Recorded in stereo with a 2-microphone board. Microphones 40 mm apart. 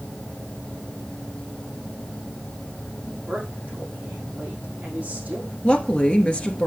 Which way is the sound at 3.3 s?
35° right (ahead or behind).